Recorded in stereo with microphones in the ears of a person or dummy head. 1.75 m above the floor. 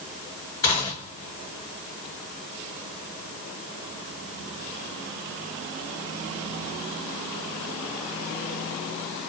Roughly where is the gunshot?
Left.